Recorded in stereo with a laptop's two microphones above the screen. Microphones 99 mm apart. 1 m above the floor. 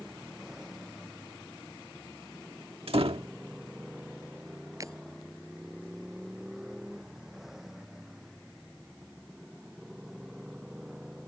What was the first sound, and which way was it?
A motorcycle, 5° right (ahead or behind).